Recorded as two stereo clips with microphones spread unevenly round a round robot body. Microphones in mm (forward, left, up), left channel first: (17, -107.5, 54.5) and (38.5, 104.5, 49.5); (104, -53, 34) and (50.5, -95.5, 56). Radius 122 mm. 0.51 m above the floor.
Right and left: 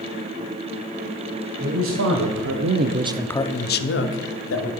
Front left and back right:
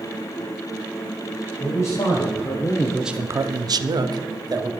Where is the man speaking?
75° left, 2.5 m; by 4.7 s 110° right, 2 m.